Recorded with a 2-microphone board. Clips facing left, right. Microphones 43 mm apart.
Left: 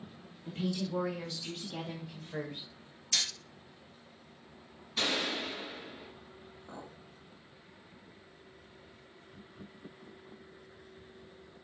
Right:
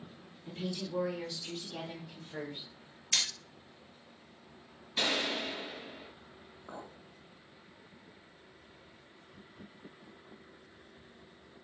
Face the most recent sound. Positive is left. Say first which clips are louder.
# right 2 dB
turn(degrees=-20)  # may be behind; listen again after turning